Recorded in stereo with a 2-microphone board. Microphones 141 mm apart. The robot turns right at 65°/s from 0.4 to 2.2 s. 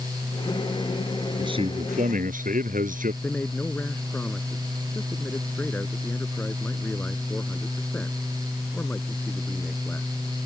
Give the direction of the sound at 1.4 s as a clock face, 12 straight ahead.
5 o'clock.